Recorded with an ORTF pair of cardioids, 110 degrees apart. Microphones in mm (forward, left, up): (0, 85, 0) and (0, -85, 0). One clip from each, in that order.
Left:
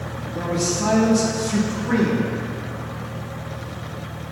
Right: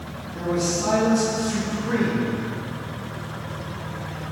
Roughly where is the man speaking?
Ahead left.